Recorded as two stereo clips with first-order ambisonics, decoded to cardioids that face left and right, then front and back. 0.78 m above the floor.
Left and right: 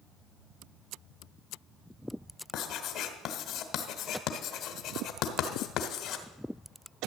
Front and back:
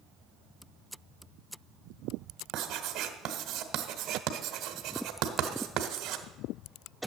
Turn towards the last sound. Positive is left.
turn(degrees=130)